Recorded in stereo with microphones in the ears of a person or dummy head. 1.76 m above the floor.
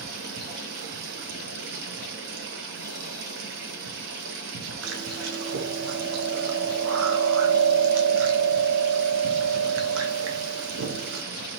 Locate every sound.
0.0 s running water: 70° right (ahead or behind), 4 m
4.8 s chewing: 80° right, 1.5 m